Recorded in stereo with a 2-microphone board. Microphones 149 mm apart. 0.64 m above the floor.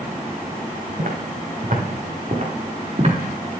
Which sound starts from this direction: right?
Footsteps, at 1.0 s.